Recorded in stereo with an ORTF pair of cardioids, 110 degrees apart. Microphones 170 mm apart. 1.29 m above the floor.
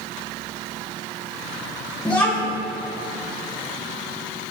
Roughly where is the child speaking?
Ahead.